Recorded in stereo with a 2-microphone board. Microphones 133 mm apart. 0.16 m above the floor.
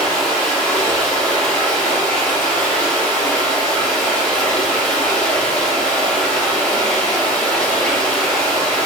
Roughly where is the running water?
Centre.